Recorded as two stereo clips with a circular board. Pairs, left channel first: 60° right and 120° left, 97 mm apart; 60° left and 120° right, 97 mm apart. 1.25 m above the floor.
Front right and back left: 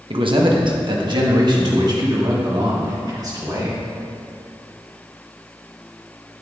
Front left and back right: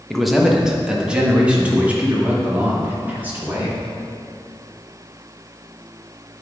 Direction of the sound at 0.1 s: 150° left.